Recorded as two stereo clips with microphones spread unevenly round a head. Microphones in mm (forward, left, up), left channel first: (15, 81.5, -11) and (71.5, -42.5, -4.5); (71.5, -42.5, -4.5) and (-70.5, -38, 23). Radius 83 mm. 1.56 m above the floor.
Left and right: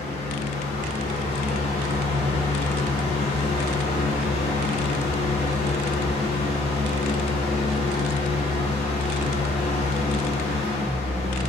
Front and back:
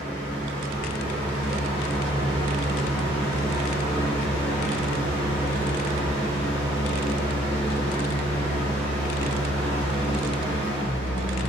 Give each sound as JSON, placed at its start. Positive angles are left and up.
{"t": 0.0, "sound": "a fan", "azimuth_deg": 125, "distance_m": 0.8}